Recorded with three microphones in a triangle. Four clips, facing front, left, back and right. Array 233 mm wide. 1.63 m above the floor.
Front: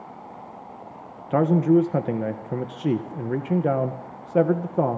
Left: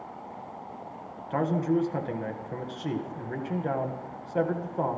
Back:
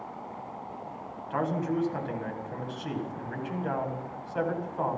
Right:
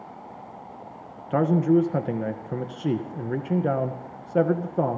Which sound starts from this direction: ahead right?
A man speaking, at 1.3 s.